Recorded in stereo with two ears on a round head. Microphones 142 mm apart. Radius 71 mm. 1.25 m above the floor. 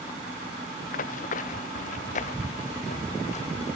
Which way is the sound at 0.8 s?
55° left (ahead or behind).